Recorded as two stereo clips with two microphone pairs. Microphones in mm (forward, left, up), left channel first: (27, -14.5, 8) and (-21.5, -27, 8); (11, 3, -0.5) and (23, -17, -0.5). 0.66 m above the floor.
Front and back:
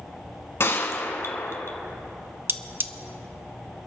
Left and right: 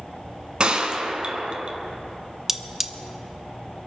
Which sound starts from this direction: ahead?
A gunshot, at 0.6 s.